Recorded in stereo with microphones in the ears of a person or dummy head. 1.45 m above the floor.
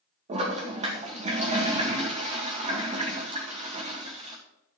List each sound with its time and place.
0.3 s a toilet flushing: 35° right (ahead or behind), 1.9 m